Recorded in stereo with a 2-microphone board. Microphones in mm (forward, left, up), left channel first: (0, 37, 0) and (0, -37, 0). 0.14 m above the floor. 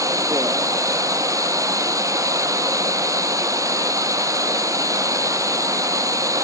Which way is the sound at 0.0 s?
55° right (ahead or behind).